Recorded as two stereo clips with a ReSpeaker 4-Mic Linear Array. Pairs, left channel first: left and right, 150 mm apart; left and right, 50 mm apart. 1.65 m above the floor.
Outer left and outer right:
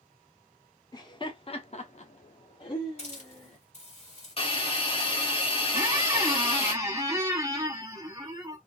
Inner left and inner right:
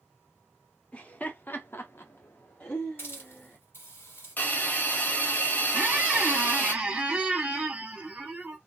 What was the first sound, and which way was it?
Laughter, 25° left (ahead or behind).